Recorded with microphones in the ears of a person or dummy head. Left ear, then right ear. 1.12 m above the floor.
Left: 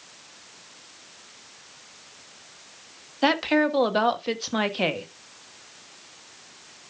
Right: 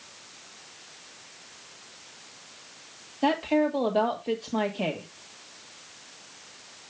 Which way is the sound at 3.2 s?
55° left (ahead or behind).